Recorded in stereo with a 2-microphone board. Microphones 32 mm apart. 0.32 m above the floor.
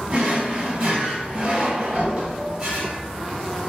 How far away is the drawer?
About 0.9 m.